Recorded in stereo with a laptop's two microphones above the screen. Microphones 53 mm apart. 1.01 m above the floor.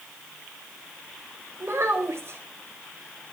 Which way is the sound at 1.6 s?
55° right (ahead or behind).